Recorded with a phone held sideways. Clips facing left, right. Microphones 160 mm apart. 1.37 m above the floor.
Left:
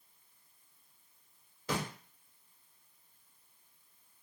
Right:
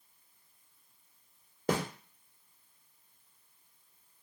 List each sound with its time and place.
1.7 s a snare drum: 55° right (ahead or behind), 0.8 m